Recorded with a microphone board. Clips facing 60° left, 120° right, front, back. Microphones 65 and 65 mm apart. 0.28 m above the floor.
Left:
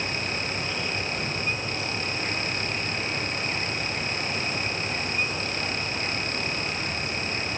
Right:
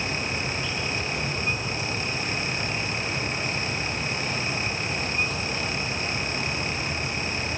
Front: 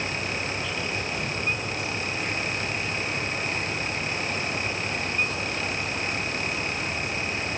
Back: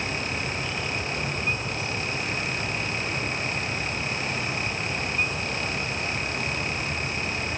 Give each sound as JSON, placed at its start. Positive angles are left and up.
{"t": 0.0, "sound": "an insect", "azimuth_deg": 20, "distance_m": 7.5}